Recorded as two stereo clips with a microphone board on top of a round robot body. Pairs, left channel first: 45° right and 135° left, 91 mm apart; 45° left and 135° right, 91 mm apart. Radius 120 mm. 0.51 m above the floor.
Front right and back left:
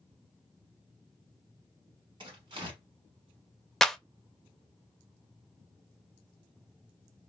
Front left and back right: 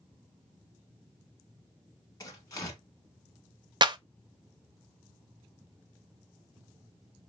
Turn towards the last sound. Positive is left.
turn(degrees=-130)